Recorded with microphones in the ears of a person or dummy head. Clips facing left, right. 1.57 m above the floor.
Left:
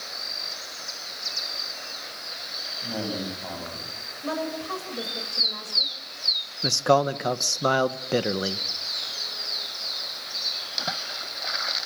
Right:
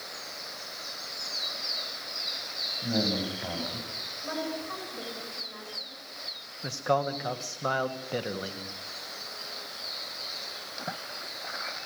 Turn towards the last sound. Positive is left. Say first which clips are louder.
# left 7 dB
turn(degrees=55)  # may be behind; listen again after turning